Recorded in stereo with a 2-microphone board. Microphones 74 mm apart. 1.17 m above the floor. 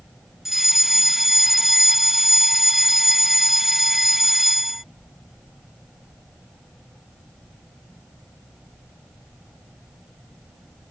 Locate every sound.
0.5 s a fire alarm: 5° right (ahead or behind)